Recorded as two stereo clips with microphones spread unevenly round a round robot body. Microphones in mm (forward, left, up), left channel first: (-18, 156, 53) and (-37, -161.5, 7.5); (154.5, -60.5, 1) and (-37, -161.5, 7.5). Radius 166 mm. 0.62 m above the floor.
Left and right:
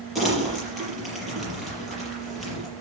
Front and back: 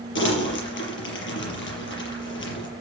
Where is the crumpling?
5° right, 5.5 m.